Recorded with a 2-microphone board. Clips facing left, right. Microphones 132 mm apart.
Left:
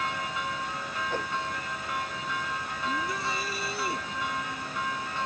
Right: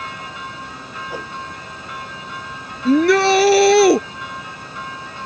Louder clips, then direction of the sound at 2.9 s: Right 20 dB; 85° right.